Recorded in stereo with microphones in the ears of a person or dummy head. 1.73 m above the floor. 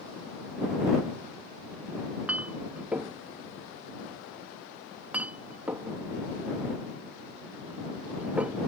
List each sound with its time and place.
2.3 s a clink: 5° right (ahead or behind)